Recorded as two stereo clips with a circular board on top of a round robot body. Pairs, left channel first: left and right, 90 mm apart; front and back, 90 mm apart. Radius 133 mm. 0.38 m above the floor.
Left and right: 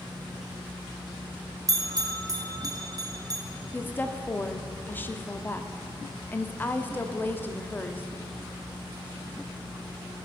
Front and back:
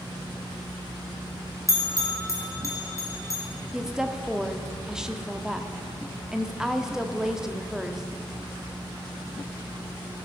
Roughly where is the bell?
Ahead right.